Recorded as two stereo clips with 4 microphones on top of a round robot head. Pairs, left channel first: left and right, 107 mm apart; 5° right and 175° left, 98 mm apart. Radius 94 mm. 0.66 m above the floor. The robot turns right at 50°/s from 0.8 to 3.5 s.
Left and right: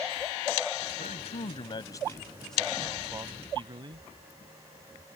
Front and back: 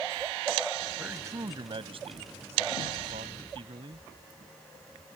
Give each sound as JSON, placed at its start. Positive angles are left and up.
{"t": 1.0, "sound": "a man speaking", "azimuth_deg": 100}